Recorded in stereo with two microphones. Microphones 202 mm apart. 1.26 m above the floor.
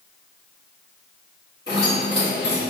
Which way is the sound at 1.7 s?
55° left (ahead or behind).